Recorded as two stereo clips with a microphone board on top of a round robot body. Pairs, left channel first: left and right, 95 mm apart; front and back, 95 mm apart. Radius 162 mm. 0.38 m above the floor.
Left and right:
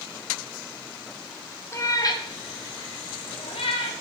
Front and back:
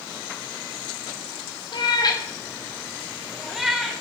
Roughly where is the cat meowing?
Ahead left.